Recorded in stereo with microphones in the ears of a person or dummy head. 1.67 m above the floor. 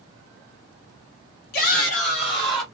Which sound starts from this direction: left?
A shout, at 1.5 s.